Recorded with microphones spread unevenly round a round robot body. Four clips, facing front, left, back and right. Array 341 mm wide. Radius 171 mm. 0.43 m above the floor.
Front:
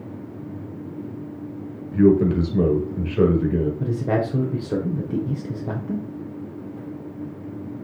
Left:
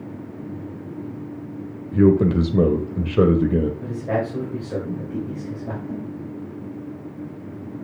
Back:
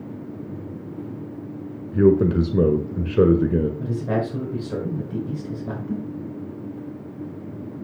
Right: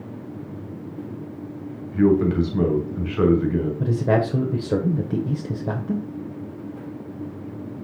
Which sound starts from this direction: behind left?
A man speaking, at 1.9 s.